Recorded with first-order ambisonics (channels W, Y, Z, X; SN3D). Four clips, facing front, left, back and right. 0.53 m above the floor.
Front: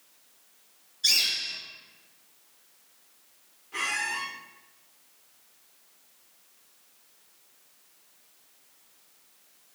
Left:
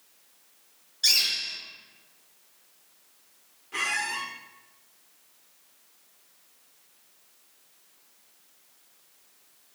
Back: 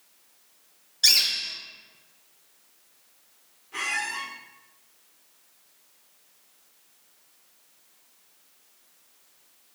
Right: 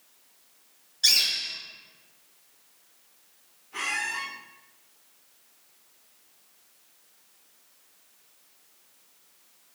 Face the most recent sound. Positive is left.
turn(degrees=85)